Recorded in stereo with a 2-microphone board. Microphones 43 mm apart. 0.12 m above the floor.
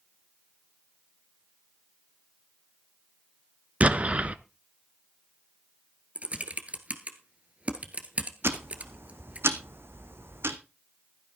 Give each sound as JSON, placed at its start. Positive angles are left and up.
{"t": 3.8, "sound": "an explosion", "side_deg": -35, "distance_m": 0.6}
{"t": 6.2, "sound": "typing on a keyboard", "side_deg": -35, "distance_m": 1.4}
{"t": 8.4, "sound": "ticking", "side_deg": -65, "distance_m": 1.1}